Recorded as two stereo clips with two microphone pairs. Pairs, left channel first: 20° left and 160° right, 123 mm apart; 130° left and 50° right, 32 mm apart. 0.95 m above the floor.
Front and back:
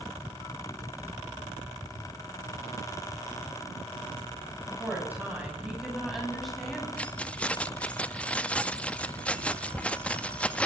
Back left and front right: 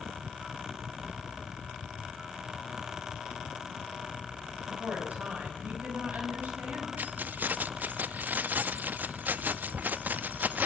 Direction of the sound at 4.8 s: 90° right.